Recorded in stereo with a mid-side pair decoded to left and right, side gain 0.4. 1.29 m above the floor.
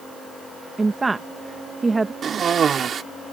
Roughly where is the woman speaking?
Ahead right.